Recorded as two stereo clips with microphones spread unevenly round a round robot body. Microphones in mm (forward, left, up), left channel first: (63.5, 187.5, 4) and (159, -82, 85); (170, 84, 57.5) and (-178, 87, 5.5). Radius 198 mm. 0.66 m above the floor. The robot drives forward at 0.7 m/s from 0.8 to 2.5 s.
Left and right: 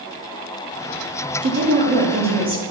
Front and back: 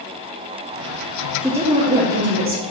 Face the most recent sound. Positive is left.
turn(degrees=-155)